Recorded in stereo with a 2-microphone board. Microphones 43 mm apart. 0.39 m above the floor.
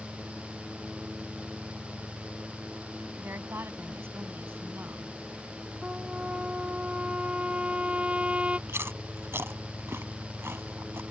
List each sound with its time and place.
3.2 s a woman speaking: 65° right (ahead or behind); by 5.1 s 60° right (ahead or behind)
5.8 s a trumpet: 30° right (ahead or behind)
8.7 s chewing: 80° right